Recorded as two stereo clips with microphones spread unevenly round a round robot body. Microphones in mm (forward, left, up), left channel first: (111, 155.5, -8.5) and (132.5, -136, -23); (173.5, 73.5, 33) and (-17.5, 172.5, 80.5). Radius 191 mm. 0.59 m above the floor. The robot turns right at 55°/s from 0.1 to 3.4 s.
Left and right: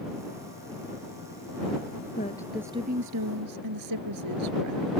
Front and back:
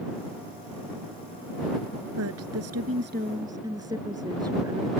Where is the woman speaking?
165° left; by 4.9 s 130° right.